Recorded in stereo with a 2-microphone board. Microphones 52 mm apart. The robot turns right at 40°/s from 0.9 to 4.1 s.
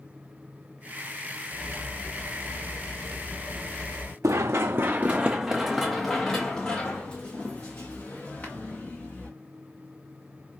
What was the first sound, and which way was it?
Cutlery clinking, 80° right.